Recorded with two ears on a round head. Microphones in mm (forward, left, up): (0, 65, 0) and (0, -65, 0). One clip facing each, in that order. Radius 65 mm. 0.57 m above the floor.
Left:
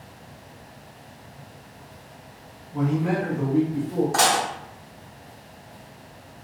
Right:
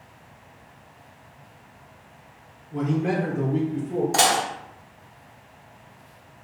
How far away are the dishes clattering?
About 0.7 m.